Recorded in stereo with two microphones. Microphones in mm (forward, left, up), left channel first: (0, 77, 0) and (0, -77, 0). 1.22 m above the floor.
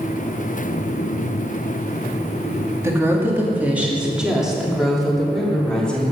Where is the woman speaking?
20° right (ahead or behind), 2.5 m; by 6.1 s 5° left (ahead or behind), 4 m.